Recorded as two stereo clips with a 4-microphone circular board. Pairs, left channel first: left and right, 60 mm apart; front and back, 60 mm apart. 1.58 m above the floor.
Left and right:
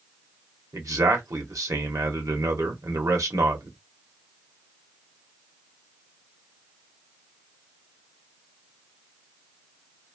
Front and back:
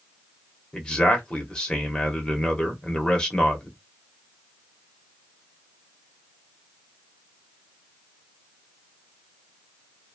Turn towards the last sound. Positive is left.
turn(degrees=-75)